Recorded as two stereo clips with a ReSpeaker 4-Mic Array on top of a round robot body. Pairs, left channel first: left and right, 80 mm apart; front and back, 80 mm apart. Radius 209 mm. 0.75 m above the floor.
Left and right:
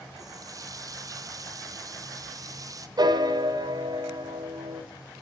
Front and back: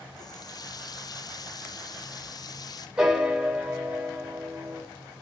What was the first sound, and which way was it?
A running tap, 40° right.